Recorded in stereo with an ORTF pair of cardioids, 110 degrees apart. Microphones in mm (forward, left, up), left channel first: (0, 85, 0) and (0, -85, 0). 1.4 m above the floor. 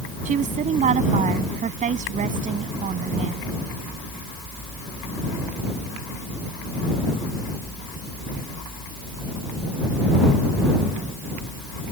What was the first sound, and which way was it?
A woman speaking, 45° right.